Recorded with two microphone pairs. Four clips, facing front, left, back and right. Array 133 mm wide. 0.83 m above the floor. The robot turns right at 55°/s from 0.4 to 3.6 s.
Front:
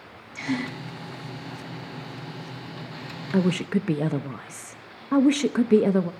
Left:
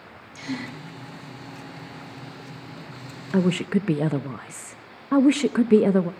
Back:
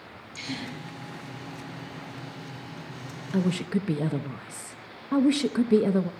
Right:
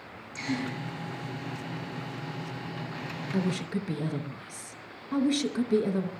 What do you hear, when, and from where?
0.3 s a gasp: straight ahead, 4.5 m; by 0.8 s 20° left, 4.5 m
3.3 s a woman speaking: 50° left, 0.9 m; by 6.1 s 65° left, 0.9 m